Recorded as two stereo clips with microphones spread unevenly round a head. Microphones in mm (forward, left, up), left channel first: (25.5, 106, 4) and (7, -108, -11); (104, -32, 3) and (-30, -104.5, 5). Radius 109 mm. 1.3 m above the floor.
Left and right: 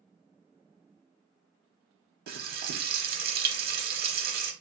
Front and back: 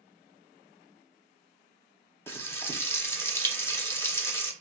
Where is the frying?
45° right, 0.7 m.